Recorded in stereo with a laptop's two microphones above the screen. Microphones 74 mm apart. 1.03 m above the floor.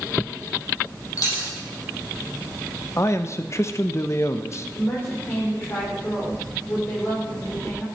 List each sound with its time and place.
1.2 s a dropped coin: 50° left (ahead or behind), 4.5 m
3.0 s a man speaking: 40° left (ahead or behind), 0.9 m
4.8 s a woman speaking: 30° left (ahead or behind), 3.5 m